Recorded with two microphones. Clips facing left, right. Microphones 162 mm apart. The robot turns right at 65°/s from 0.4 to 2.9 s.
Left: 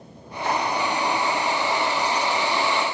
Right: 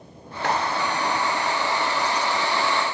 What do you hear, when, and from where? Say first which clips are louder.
0.4 s cutlery clinking: even; 75° right (ahead or behind), 4.5 m; by 0.6 s 60° right (ahead or behind), 4.5 m